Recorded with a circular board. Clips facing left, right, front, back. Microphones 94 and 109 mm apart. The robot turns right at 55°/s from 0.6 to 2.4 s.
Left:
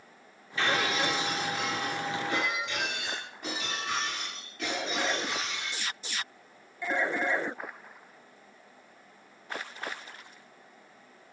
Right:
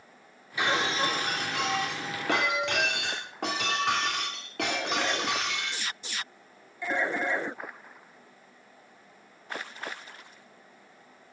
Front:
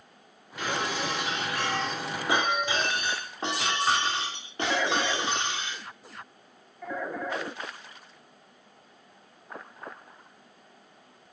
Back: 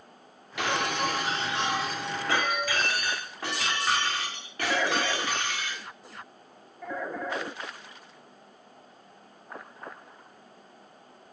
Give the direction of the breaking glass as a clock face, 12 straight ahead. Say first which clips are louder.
Right 1 dB, back 2 dB; 6 o'clock.